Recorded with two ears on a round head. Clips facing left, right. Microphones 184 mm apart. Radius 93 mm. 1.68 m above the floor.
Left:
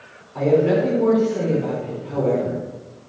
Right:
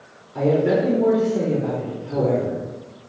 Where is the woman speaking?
15° right (ahead or behind), 5.5 m.